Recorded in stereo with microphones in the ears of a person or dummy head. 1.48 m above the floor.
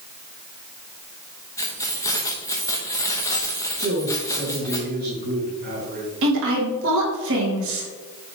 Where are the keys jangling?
20° left (ahead or behind), 1.0 m.